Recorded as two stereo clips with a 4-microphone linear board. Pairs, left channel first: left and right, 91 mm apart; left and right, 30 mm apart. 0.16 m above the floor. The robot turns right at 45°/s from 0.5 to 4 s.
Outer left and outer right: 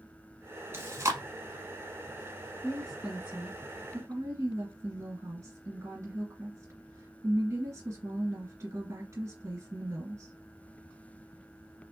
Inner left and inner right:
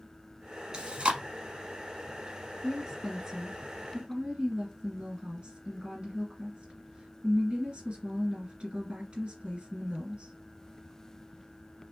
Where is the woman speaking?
165° left, 2.5 m; by 10.3 s 135° right, 2.5 m.